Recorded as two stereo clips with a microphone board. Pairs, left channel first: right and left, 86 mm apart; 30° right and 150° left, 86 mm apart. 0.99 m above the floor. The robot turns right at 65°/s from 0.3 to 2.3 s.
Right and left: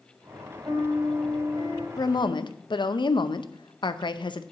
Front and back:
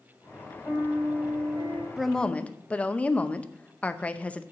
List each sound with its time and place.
0.7 s a piano: 35° left, 2.5 m; by 1.9 s 115° left, 2.5 m
2.0 s a woman speaking: 125° right, 0.6 m; by 4.4 s 105° right, 0.6 m